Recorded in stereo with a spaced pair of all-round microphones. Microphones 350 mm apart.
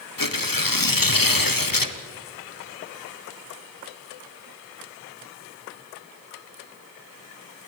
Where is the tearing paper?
70° left (ahead or behind), 1.1 m.